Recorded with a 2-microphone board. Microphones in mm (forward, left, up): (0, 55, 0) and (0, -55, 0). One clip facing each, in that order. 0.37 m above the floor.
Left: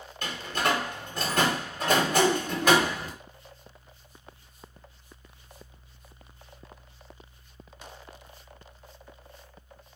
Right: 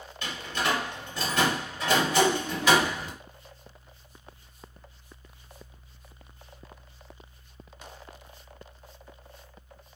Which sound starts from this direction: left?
A door slam, at 0.2 s.